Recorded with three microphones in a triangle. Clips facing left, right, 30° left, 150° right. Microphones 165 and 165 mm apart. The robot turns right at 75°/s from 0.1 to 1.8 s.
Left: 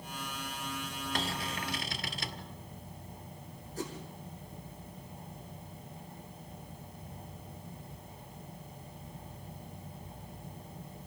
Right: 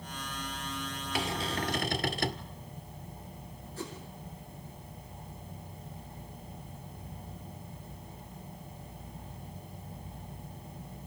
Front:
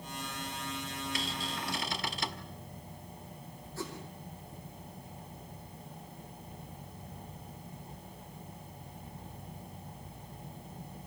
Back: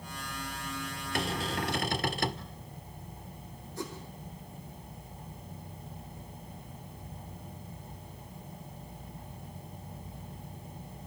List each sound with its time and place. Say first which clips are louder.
1.1 s a cupboard door: right 5 dB, back 10 dB; 170° right, 1.5 m; by 2.5 s 125° right, 1.5 m
3.8 s a whoosh: left 2 dB, back 1 dB; 140° left, 6.5 m